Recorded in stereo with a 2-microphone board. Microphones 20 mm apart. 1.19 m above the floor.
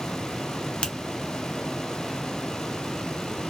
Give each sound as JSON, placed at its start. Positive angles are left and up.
{"t": 0.8, "sound": "a finger snap", "side_deg": 60, "distance_m": 0.6}